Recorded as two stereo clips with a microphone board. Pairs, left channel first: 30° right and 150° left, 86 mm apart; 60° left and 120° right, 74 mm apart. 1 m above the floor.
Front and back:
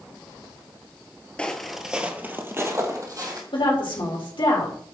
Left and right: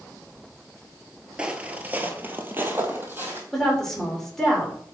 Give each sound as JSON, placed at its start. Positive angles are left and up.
{"t": 1.4, "sound": "footsteps", "azimuth_deg": -80, "distance_m": 1.0}
{"t": 3.5, "sound": "a woman speaking", "azimuth_deg": -25, "distance_m": 3.0}